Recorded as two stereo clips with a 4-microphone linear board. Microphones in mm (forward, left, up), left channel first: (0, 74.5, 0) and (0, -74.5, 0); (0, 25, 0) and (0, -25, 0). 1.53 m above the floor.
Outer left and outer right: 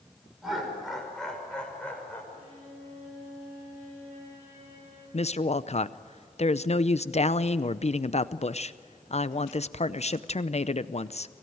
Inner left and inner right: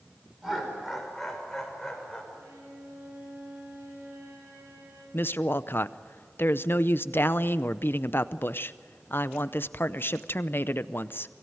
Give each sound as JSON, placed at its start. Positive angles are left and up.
{"t": 0.4, "sound": "laughter", "side_deg": -5, "distance_m": 6.0}
{"t": 2.3, "sound": "a violin", "side_deg": -50, "distance_m": 8.0}
{"t": 5.1, "sound": "a woman speaking", "side_deg": 45, "distance_m": 0.6}